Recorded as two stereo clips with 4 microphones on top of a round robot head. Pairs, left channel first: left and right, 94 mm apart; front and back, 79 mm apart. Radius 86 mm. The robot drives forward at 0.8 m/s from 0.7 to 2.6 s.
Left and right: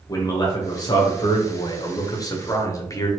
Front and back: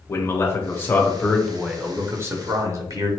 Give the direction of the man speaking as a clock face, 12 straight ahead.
10 o'clock.